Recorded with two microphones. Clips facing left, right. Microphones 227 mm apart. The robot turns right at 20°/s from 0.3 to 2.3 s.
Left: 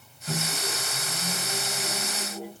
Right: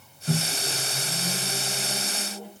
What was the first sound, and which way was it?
A microwave, 30° right.